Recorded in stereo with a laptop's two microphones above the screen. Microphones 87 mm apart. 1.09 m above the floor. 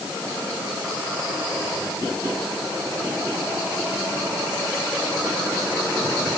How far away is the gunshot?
I don't hear a gunshot.